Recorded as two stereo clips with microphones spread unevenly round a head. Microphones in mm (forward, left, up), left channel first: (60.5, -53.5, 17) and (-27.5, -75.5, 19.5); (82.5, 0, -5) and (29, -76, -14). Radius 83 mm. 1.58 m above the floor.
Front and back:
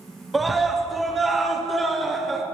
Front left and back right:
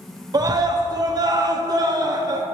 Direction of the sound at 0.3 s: 75° right.